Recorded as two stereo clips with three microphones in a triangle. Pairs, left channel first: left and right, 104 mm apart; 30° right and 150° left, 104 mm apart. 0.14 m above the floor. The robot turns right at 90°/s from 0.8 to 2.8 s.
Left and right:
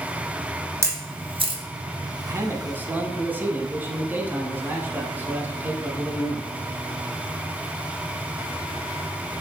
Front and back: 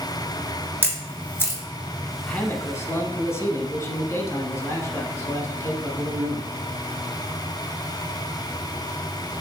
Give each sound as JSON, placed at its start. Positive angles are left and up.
{"t": 0.8, "sound": "a camera shutter", "azimuth_deg": -145, "distance_m": 1.5}
{"t": 2.3, "sound": "a man speaking", "azimuth_deg": -95, "distance_m": 1.1}